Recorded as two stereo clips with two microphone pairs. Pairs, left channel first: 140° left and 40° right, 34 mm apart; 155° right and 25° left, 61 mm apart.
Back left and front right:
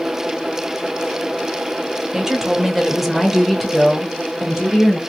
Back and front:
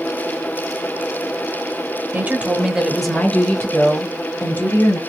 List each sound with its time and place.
2.1 s a woman speaking: 20° left, 0.9 m; by 5.0 s 145° right, 1.4 m